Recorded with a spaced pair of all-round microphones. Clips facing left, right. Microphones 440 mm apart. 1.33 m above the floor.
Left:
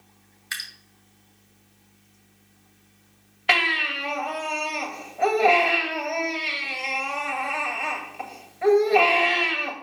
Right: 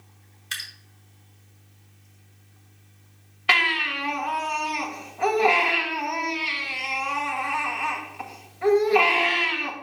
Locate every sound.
0.5 s dripping: 50° right (ahead or behind), 2.0 m
3.5 s a baby crying: 20° right (ahead or behind), 2.0 m